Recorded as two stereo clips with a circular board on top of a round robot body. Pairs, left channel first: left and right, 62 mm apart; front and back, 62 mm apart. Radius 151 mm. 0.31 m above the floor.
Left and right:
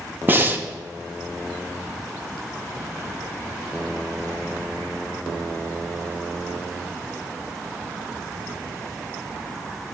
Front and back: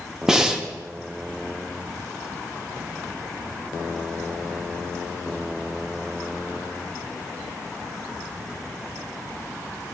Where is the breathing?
110° right, 0.9 m.